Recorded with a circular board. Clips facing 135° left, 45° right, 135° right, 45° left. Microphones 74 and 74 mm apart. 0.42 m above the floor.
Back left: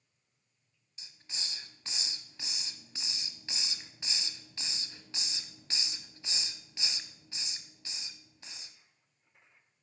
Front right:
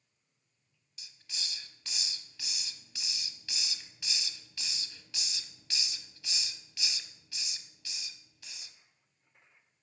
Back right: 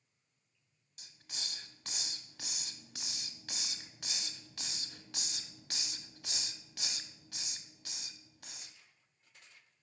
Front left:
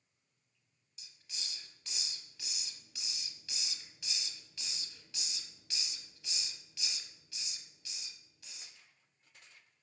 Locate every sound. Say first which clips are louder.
1.0 s a hiss: even, back right 3 dB; 165° right, 0.7 m